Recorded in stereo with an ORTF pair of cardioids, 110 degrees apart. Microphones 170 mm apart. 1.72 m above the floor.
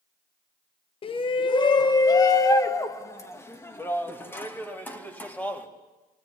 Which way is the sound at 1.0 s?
35° left.